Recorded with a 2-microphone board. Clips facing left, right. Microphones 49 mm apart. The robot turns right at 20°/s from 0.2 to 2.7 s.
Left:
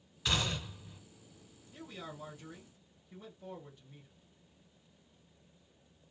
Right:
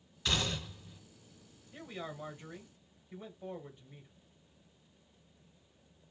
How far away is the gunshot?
About 1.1 m.